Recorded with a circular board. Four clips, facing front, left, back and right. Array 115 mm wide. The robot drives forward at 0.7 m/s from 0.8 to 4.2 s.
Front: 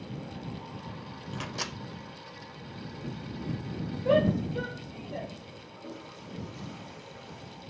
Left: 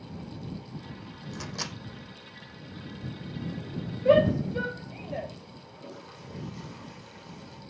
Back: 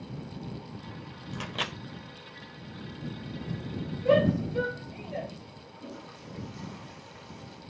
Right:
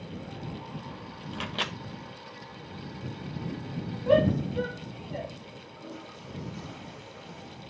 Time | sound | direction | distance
1.3 | a microwave | 75° right | 0.6 m
4.0 | a shout | 120° left | 4.5 m
5.8 | a toilet flushing | 130° left | 4 m